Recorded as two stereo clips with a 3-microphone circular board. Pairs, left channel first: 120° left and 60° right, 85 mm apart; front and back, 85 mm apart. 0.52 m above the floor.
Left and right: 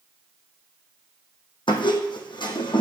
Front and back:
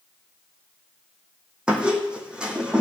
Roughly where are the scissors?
I don't hear scissors.